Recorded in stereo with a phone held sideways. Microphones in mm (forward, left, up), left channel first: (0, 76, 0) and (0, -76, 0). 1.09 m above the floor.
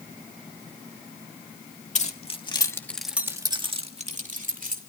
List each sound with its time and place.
1.9 s keys jangling: 50° left (ahead or behind), 1.8 m; by 4.8 s 60° right (ahead or behind), 2.5 m